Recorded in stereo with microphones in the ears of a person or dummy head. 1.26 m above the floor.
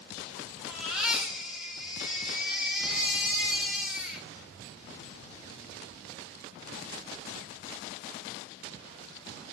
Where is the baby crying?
Centre (ahead or behind), 4 m.